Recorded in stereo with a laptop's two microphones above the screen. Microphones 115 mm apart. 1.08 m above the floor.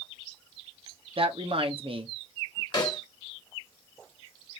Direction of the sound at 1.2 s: 55° right (ahead or behind).